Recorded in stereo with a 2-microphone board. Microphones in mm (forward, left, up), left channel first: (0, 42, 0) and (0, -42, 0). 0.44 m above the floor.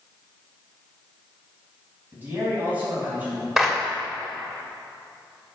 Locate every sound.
2.1 s a man speaking: 25° right (ahead or behind), 3.5 m; by 3.5 s 20° right (ahead or behind), 4 m
3.6 s a clap: 5° right (ahead or behind), 1.7 m